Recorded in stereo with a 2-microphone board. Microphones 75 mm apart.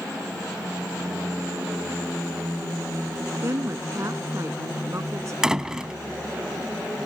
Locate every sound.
3.4 s a woman speaking: 40° right (ahead or behind)
5.4 s a door slam: 10° right (ahead or behind)